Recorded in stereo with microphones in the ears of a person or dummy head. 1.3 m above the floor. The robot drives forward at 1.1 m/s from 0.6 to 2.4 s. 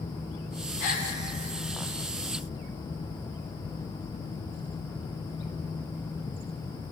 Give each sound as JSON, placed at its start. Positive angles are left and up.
{"t": 0.8, "sound": "a gasp", "side_deg": 40, "distance_m": 1.1}